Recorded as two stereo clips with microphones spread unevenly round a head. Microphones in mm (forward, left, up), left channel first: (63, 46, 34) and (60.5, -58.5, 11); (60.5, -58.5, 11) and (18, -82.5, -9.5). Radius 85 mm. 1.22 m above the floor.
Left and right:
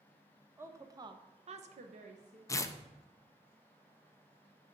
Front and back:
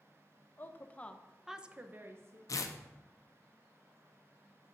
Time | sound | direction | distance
0.6 | a woman speaking | 25° right | 1.1 m
2.5 | tearing paper | 20° left | 0.6 m